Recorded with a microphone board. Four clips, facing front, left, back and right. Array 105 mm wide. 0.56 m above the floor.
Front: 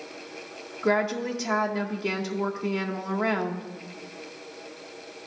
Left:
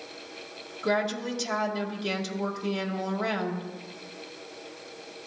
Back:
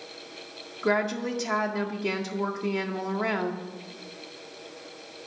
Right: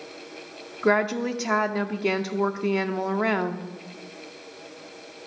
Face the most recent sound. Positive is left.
turn(degrees=-90)